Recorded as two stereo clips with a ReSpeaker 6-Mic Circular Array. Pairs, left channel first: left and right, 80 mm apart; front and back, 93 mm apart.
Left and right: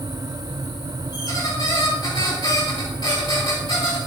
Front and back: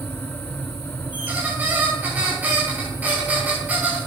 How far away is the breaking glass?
No breaking glass in this recording.